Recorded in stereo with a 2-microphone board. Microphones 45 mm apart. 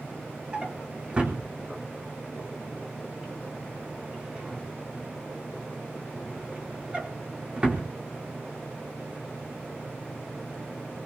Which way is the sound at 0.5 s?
25° right (ahead or behind).